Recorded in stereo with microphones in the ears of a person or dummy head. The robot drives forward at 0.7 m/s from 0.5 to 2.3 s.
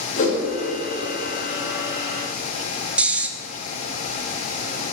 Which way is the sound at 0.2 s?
45° left (ahead or behind).